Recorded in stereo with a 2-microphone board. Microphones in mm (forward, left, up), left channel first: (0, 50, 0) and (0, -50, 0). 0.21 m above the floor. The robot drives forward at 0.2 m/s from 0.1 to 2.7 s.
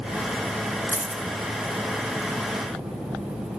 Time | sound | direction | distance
0.9 | a dropped coin | 30° right (ahead or behind) | 0.8 m